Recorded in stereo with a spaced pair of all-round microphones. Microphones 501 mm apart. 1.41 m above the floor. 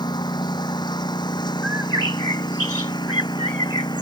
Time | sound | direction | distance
0.0 | a lawn mower | 10° left (ahead or behind) | ?
1.6 | a bird | 60° right (ahead or behind) | ?